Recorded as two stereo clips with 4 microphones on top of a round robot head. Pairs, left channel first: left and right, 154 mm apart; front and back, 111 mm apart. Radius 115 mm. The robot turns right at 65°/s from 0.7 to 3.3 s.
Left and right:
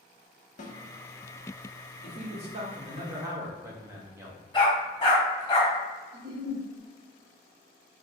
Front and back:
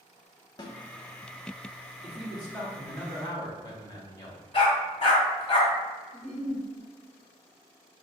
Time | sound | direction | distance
0.6 | a snare drum | 55° left | 0.8 m
2.0 | a man speaking | 110° right | 1.3 m
4.5 | a dog barking | 30° left | 1.7 m
6.1 | a giggle | 65° right | 0.8 m